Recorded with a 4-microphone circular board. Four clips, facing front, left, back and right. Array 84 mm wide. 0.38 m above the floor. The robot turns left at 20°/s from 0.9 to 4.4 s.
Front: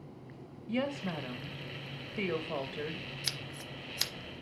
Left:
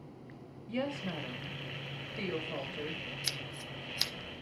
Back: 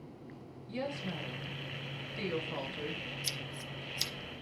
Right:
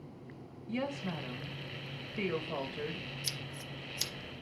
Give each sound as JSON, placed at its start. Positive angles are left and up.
{"t": 0.7, "sound": "a woman speaking", "azimuth_deg": 15, "distance_m": 1.1}
{"t": 3.2, "sound": "scissors", "azimuth_deg": 50, "distance_m": 0.9}